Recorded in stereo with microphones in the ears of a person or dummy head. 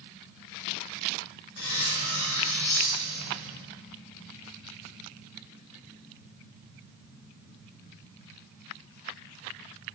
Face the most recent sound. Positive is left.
turn(degrees=55)  # may be behind; listen again after turning